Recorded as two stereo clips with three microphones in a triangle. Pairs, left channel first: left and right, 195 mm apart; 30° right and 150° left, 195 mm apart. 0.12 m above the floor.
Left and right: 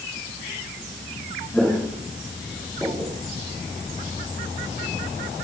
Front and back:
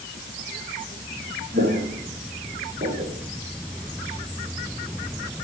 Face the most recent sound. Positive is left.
turn(degrees=-170)